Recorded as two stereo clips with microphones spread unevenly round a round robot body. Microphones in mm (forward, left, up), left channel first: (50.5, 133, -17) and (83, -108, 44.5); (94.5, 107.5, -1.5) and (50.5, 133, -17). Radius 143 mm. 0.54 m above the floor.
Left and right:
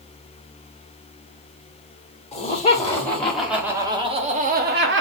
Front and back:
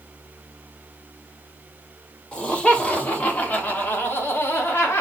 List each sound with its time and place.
2.3 s laughter: 50° left, 1.4 m; by 5.0 s 55° right, 1.1 m